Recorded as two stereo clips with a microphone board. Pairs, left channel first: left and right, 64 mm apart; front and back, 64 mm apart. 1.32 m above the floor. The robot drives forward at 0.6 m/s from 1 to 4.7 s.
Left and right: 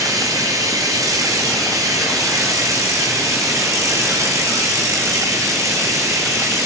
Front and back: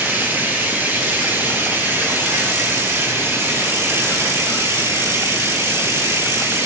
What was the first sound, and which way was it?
Running water, 120° right.